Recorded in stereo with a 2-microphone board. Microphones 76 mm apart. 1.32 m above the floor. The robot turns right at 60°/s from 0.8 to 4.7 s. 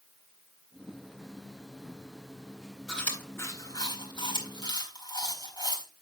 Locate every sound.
2.9 s chewing: 5° left (ahead or behind), 4 m; by 5.8 s 65° left (ahead or behind), 4 m